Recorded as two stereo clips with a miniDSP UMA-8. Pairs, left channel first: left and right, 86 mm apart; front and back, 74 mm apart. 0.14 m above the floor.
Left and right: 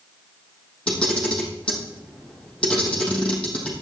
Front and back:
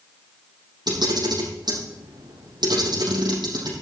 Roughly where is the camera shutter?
Behind.